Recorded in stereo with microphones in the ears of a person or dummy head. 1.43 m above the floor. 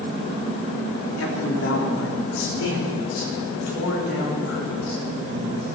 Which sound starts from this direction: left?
A man speaking, at 1.2 s.